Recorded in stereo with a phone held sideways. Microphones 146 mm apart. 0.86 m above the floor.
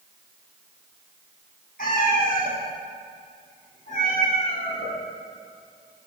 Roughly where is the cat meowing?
Left.